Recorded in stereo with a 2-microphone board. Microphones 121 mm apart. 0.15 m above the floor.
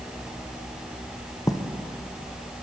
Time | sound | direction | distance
1.5 | writing | 30° left (ahead or behind) | 3.5 m